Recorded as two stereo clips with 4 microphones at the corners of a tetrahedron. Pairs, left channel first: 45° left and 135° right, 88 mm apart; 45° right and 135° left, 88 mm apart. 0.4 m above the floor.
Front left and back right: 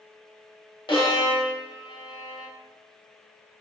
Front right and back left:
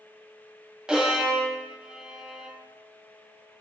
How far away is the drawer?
I don't hear a drawer.